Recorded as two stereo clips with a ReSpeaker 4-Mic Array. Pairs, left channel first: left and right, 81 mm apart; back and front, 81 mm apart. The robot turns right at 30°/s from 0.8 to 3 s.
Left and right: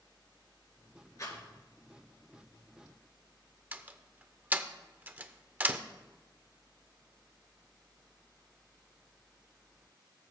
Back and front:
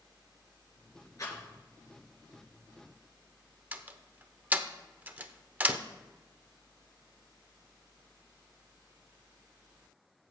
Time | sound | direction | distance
1.2 | a rattle | 135° left | 3.5 m
3.7 | a door slam | 45° right | 0.5 m